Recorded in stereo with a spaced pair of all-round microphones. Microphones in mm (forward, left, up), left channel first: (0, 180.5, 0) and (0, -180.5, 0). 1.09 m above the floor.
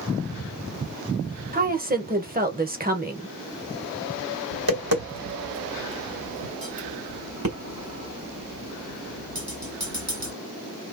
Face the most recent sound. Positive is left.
turn(degrees=-70)  # may be behind; listen again after turning